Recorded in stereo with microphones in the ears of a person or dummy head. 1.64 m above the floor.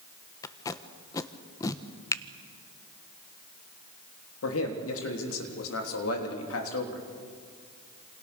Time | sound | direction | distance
0.4 | tape being pulled | 25° left (ahead or behind) | 1.1 m
2.1 | a finger snap | 25° left (ahead or behind) | 0.9 m
4.4 | a man speaking | 90° left | 3.5 m